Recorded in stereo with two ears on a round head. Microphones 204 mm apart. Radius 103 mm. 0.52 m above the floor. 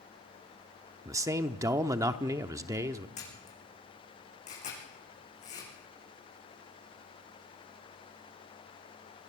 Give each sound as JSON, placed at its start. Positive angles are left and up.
{"t": 1.1, "sound": "a man speaking", "side_deg": -15, "distance_m": 0.8}
{"t": 3.2, "sound": "a camera shutter", "side_deg": 35, "distance_m": 8.5}